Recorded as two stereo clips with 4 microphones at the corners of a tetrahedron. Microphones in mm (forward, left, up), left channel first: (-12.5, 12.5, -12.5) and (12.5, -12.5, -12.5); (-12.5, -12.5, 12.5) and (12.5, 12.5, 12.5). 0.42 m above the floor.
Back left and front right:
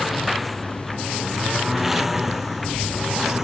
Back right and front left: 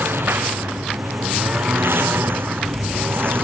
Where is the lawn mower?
45° left; by 3.5 s 30° left.